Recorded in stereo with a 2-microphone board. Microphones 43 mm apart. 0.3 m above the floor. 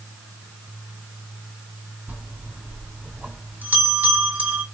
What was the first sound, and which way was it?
A bell, 45° right (ahead or behind).